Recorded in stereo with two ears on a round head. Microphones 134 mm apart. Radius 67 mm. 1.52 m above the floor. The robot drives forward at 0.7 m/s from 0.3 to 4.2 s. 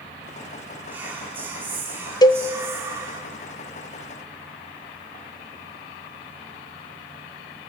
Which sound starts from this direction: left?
A cowbell, at 2.2 s.